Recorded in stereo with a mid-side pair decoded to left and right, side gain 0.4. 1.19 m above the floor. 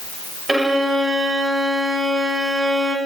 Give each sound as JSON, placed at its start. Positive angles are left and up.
{"t": 0.5, "sound": "a violin", "azimuth_deg": -25, "distance_m": 4.0}